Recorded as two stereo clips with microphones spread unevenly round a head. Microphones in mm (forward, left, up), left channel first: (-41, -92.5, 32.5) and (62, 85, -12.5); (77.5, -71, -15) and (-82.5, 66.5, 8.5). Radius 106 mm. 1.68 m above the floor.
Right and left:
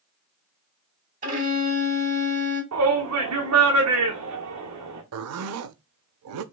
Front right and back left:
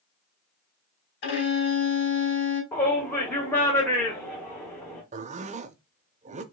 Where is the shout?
45° left, 1.3 m.